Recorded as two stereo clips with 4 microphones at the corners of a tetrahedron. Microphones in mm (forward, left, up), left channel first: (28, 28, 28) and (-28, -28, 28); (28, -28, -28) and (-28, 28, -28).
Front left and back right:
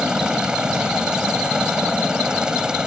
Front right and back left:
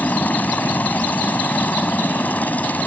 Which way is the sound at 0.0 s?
70° right.